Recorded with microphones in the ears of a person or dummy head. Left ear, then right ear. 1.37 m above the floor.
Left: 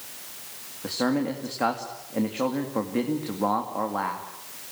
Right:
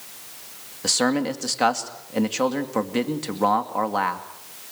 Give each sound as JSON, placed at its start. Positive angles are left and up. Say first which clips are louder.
{"t": 0.8, "sound": "a man speaking", "louder": "right 5 dB", "side_deg": -80, "distance_m": 2.5}